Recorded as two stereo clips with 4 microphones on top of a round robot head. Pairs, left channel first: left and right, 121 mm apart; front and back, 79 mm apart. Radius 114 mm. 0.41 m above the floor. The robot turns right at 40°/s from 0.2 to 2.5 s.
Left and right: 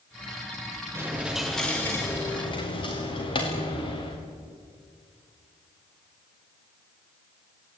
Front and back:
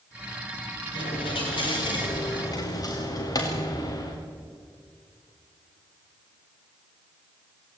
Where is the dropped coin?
20° right, 5 m; by 4.2 s 40° left, 5 m.